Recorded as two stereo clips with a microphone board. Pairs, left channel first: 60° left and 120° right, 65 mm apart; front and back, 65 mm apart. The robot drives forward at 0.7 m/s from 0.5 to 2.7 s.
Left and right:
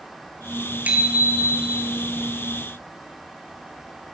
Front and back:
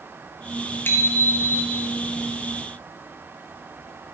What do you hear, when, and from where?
0.8 s a bicycle bell: 55° right, 3.5 m; by 1.9 s 70° right, 3 m